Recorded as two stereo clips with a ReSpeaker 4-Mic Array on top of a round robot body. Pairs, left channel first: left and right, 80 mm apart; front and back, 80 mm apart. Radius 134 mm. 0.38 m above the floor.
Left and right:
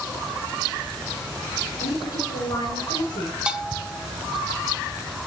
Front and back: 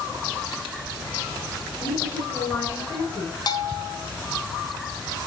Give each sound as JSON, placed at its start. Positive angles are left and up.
{"t": 1.8, "sound": "a woman speaking", "azimuth_deg": 70, "distance_m": 5.5}
{"t": 3.5, "sound": "a bell", "azimuth_deg": -15, "distance_m": 1.4}